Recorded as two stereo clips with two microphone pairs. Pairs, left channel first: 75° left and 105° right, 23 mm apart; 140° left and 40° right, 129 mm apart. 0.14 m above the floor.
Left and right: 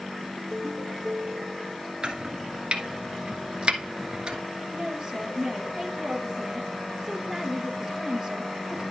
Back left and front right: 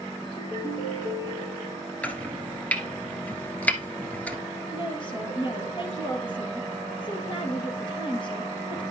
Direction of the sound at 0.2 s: 170° right.